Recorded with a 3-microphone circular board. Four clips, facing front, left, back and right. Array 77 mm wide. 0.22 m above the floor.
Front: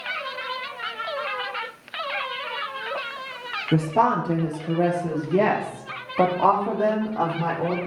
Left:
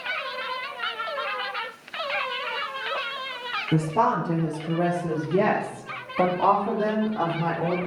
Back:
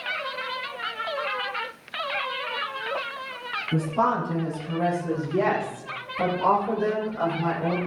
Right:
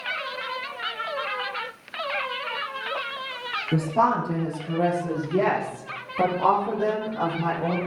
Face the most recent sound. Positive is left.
turn(degrees=20)